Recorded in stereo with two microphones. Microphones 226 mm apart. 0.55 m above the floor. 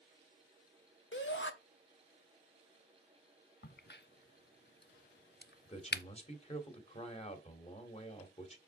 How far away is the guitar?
I don't hear a guitar.